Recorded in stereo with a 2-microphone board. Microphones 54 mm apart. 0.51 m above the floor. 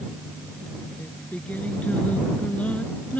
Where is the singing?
25° left (ahead or behind).